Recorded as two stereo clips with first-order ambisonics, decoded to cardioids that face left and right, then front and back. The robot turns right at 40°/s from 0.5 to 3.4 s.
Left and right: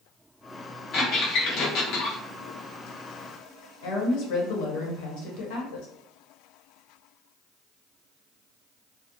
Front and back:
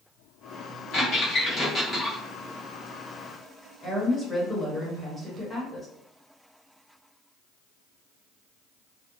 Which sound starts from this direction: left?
A woman speaking, at 3.8 s.